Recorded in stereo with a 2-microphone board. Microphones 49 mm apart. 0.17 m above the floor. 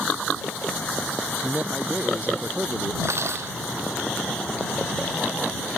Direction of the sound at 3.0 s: 65° right (ahead or behind).